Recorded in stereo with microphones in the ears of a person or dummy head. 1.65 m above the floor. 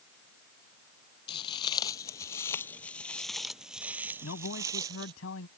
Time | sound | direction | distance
1.3 | footsteps | 35° left (ahead or behind) | ?
4.2 | a man speaking | 80° left | ?